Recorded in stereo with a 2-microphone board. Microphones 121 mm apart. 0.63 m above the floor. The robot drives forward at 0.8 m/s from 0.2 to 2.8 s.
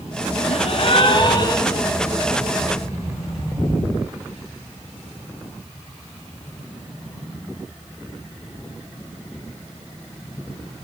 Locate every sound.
0.5 s a gasp: 65° left (ahead or behind), 0.9 m; by 1.9 s 30° left (ahead or behind), 1.7 m